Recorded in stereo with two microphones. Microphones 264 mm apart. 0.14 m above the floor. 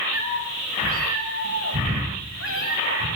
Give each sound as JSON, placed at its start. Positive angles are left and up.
{"t": 0.1, "sound": "a cat meowing", "side_deg": -60, "distance_m": 9.5}